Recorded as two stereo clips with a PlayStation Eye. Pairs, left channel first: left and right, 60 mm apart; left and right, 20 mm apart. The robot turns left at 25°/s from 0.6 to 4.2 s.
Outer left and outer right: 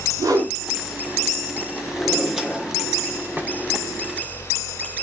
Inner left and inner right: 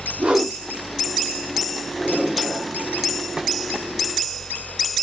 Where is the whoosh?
70° right (ahead or behind), 2 m.